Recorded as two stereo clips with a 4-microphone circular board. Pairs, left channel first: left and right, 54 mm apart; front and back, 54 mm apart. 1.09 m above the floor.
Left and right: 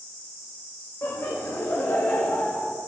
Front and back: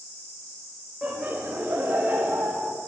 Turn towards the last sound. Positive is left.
turn(degrees=145)